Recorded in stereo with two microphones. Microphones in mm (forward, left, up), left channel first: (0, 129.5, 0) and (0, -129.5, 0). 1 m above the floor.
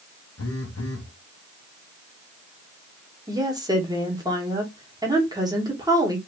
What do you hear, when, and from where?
0.4 s a phone buzzing: 65° left (ahead or behind), 0.6 m
3.3 s a woman speaking: 15° right (ahead or behind), 1.3 m